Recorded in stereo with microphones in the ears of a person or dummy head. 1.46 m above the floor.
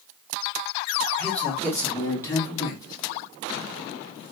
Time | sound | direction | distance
1.2 | a man speaking | 5° left (ahead or behind) | 2.5 m